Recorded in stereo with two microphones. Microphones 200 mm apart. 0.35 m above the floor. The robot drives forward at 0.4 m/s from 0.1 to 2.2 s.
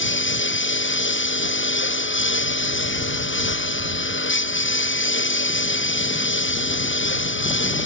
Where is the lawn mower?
75° left (ahead or behind); by 7.9 s 80° left.